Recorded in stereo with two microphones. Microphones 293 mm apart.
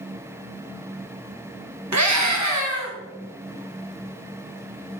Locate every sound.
1.9 s a scream: 70° right (ahead or behind), 0.8 m